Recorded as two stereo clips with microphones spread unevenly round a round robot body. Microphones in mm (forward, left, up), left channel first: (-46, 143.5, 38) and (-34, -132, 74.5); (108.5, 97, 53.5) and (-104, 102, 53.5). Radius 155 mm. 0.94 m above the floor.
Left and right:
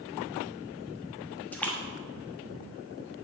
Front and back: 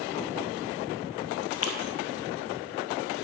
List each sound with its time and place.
1.5 s a splash: 10° left, 1.1 m